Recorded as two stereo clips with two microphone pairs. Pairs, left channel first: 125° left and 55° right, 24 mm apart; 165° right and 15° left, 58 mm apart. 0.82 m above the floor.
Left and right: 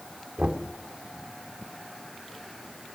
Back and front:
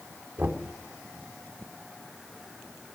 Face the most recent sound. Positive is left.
turn(degrees=-35)